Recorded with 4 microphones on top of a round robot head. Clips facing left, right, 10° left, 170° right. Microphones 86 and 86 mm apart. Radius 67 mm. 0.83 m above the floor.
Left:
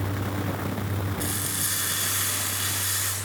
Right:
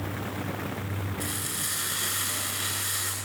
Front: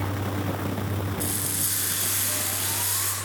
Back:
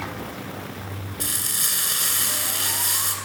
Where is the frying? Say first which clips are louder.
Left 3 dB, front 2 dB; 165° left, 9.5 m.